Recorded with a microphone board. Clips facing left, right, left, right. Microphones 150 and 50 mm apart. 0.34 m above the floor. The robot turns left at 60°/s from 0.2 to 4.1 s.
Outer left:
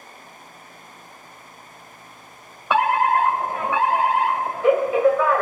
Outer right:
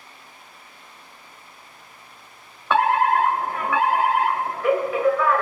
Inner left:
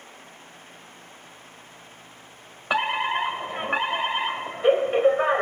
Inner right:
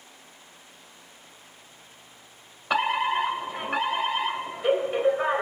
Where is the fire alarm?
10° left (ahead or behind), 1.8 m; by 5.4 s 20° left (ahead or behind), 1.8 m.